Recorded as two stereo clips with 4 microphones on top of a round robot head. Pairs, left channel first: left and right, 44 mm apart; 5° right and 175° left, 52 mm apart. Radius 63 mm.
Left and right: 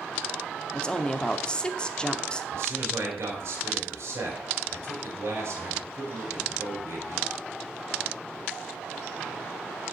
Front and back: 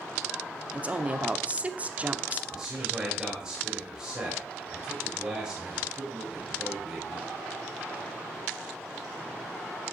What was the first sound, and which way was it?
A woman speaking, 145° left.